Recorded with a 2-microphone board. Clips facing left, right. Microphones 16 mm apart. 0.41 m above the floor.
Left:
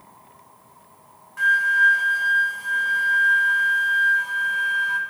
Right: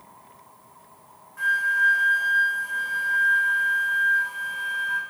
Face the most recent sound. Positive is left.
turn(degrees=35)  # may be behind; listen again after turning